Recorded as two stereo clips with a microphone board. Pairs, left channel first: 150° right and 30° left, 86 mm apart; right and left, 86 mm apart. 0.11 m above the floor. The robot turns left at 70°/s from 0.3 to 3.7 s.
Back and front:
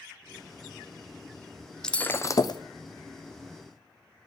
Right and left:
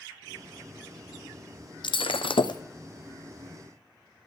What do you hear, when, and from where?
1.8 s breaking glass: 70° right, 0.5 m; by 2.6 s 120° right, 0.5 m